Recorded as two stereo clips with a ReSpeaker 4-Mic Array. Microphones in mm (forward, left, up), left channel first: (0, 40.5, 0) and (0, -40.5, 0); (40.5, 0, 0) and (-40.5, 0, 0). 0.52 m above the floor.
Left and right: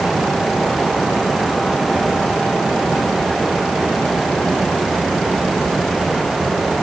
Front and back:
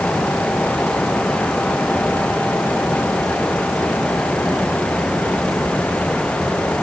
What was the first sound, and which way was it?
Only background noise.